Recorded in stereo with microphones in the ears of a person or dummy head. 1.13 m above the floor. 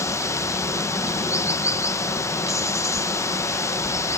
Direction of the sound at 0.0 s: 15° left (ahead or behind).